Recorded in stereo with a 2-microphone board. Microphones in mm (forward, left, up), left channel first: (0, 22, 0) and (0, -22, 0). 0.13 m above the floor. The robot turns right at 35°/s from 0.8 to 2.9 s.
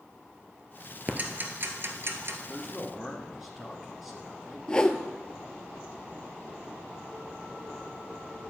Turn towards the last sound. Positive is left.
turn(degrees=20)  # may be behind; listen again after turning